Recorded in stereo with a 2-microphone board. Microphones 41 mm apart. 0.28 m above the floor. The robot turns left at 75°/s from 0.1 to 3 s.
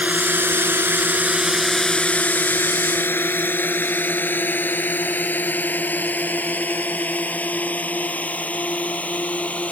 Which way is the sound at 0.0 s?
40° right (ahead or behind).